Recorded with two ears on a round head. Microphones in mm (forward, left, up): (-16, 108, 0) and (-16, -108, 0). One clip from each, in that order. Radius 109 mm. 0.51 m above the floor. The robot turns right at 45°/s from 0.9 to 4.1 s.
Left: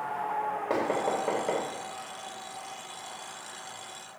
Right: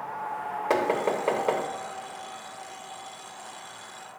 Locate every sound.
0.7 s knocking: 65° right (ahead or behind), 1.3 m